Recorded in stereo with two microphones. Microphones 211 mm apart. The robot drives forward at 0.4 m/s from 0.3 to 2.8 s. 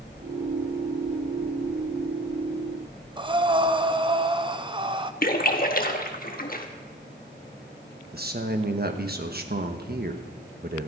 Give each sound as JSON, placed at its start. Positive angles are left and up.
{"t": 3.2, "sound": "breathing", "side_deg": -25, "distance_m": 0.6}
{"t": 5.2, "sound": "a splash", "side_deg": 50, "distance_m": 1.3}
{"t": 8.1, "sound": "a man speaking", "side_deg": -55, "distance_m": 1.2}